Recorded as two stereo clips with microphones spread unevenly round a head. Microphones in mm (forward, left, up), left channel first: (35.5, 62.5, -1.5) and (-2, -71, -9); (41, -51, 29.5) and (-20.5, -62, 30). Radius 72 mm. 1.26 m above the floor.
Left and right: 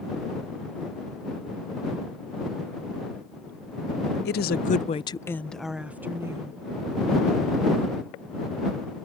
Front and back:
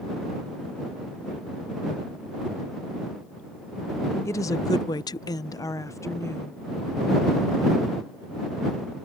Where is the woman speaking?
65° left; by 6.6 s 40° right.